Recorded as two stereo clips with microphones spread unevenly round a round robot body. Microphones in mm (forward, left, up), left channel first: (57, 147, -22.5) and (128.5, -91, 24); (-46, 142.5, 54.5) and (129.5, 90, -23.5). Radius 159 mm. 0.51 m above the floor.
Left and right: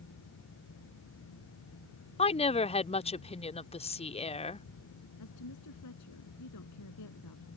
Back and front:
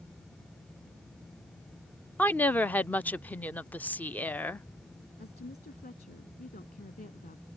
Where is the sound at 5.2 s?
125° left.